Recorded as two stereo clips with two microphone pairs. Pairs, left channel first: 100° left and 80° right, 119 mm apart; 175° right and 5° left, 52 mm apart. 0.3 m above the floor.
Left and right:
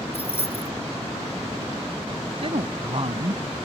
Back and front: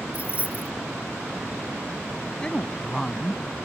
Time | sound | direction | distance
0.1 | keys jangling | 65° left | ?
2.4 | a woman speaking | 105° right | ?